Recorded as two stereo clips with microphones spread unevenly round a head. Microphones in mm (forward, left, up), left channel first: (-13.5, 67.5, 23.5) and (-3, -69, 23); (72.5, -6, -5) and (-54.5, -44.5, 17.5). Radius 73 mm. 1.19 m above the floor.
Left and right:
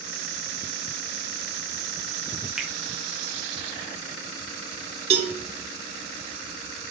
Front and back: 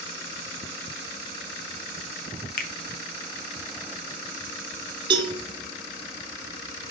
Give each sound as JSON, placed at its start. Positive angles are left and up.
{"t": 2.6, "sound": "a finger snap", "azimuth_deg": 0, "distance_m": 0.8}
{"t": 5.1, "sound": "a cowbell", "azimuth_deg": -110, "distance_m": 0.9}